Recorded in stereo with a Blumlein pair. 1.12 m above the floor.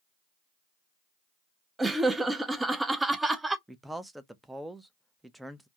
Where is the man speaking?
5° right, 0.5 m.